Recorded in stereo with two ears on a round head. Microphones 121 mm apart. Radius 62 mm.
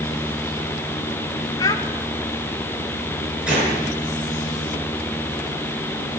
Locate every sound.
1.6 s a child speaking: 25° left (ahead or behind), 0.7 m
3.5 s a gunshot: 5° right (ahead or behind), 7 m